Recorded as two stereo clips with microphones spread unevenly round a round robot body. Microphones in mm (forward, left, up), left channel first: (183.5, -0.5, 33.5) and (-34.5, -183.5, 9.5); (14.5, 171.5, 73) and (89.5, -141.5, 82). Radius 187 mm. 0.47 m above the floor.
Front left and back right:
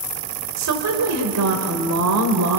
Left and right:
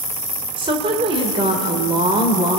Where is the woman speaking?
150° right, 1.5 m.